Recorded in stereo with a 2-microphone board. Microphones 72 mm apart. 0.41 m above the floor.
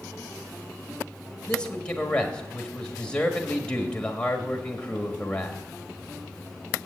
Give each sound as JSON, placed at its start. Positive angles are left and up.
{"t": 1.5, "sound": "a man speaking", "side_deg": 15, "distance_m": 1.5}